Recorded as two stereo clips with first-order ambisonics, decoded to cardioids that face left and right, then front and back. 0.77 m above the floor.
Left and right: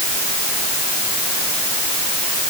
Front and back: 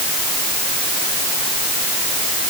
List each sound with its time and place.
Only background noise.